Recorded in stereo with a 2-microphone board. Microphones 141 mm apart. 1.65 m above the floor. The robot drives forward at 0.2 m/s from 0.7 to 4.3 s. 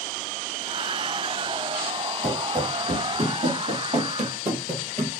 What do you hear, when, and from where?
2.2 s running footsteps: 65° right (ahead or behind), 3.5 m; by 5.1 s 45° right (ahead or behind), 2.5 m